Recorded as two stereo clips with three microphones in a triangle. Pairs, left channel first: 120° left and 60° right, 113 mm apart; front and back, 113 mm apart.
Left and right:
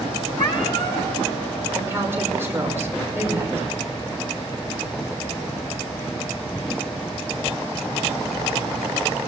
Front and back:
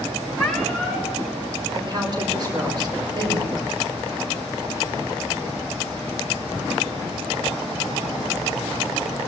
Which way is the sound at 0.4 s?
90° left.